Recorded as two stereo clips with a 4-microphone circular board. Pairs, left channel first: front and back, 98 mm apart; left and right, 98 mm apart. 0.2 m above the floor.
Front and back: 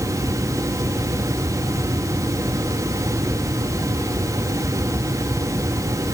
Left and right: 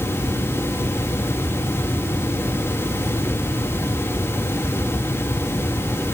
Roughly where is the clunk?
No clunk in this recording.